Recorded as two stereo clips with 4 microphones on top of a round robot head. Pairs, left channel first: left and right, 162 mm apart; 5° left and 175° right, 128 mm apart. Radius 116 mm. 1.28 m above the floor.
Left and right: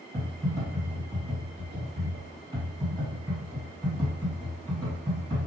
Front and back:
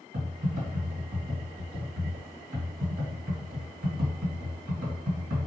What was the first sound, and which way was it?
Typing on a keyboard, 160° right.